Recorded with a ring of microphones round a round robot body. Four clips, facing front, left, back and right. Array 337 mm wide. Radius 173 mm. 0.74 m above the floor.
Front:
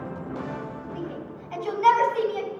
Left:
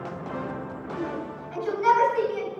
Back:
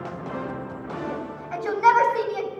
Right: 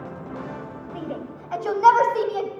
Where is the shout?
110° right, 4 m; by 2.5 s 95° right, 4.5 m.